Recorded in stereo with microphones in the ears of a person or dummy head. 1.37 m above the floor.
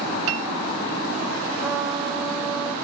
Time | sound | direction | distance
0.3 | a piano | 75° right (ahead or behind) | 0.6 m
1.6 | a trumpet | 5° right (ahead or behind) | 2.5 m